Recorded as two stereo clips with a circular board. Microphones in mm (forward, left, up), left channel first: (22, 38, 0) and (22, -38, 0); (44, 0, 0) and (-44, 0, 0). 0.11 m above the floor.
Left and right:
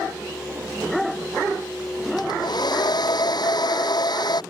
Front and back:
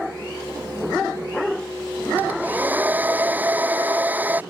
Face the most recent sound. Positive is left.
turn(degrees=110)